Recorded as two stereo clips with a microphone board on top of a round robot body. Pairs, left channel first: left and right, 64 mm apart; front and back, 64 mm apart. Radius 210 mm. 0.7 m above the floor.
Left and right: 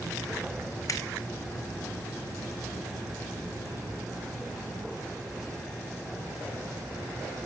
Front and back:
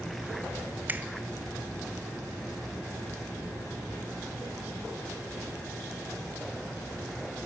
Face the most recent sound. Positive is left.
turn(degrees=120)